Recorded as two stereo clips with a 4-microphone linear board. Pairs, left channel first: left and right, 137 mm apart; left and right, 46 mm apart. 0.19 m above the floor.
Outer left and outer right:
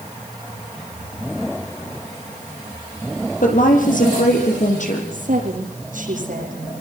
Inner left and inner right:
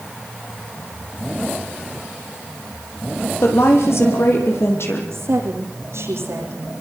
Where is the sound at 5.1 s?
75° right (ahead or behind), 9.5 m.